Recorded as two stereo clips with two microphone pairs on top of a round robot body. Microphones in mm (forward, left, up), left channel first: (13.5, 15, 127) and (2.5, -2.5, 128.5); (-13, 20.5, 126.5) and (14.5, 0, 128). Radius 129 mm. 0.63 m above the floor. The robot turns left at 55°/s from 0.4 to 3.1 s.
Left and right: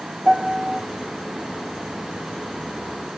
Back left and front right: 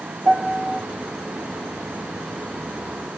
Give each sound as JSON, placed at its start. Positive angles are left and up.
{"t": 0.2, "sound": "a piano", "azimuth_deg": -70, "distance_m": 1.1}